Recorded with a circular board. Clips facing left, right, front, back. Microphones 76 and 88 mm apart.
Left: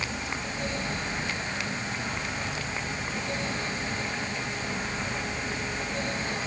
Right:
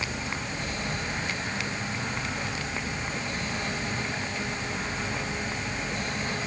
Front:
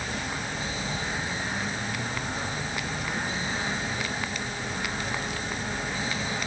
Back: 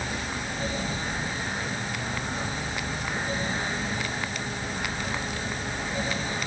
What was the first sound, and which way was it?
Only background noise.